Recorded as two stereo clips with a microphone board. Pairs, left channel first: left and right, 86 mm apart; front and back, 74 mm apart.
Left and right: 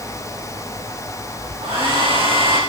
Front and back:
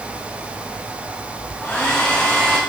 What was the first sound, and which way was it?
A hair dryer, 80° right.